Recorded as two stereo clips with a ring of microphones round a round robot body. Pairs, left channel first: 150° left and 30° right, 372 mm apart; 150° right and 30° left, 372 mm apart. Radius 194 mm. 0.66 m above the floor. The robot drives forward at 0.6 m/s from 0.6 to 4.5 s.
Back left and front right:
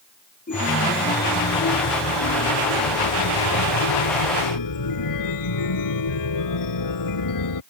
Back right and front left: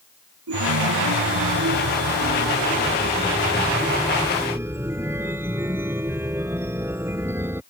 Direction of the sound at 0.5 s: 80° left.